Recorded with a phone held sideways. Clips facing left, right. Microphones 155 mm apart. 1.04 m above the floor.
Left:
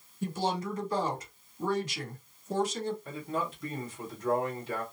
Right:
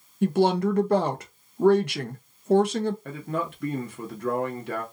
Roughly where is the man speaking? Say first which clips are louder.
Right 4 dB; right.